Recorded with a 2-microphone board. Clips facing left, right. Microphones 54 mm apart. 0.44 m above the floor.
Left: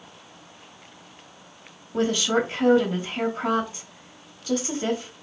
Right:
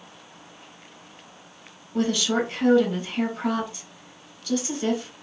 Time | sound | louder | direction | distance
1.9 | a woman speaking | left 1 dB | 25° left (ahead or behind) | 1.1 m